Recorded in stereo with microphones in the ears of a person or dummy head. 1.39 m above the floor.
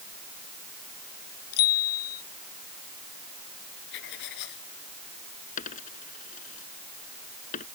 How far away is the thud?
No thud in this recording.